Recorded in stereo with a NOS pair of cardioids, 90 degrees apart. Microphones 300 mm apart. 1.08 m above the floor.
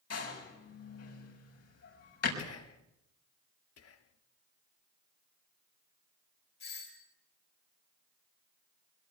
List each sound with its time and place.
0.1 s a door slam: 55° left, 6 m
2.4 s whispering: 55° left, 3.5 m
3.8 s whispering: 50° left, 1.9 m
6.6 s a doorbell: 65° left, 7 m